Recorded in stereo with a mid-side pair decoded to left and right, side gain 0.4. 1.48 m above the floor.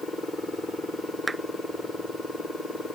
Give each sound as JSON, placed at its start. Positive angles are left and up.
{"t": 1.3, "sound": "a clap", "azimuth_deg": -35}